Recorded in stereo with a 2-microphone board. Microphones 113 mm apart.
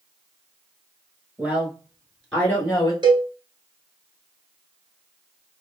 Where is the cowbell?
40° right (ahead or behind), 0.7 m.